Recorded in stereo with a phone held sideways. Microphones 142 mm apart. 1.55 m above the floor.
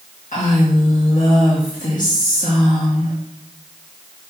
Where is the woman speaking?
65° left (ahead or behind), 2.0 m.